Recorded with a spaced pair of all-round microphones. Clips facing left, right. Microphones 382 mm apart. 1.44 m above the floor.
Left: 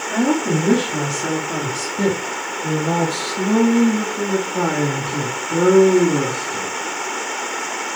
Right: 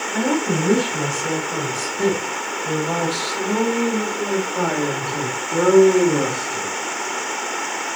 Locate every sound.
0.1 s a woman speaking: 85° left, 3.5 m; by 6.7 s 30° left (ahead or behind), 3 m